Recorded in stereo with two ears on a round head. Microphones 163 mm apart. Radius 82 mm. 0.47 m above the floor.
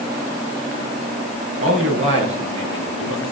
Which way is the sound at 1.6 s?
40° right (ahead or behind).